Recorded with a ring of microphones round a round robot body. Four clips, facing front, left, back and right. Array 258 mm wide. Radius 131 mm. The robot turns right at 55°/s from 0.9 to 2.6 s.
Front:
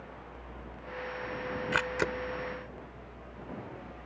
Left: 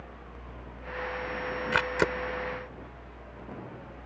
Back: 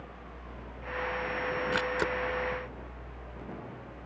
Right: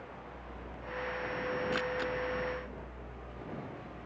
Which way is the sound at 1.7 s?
70° left.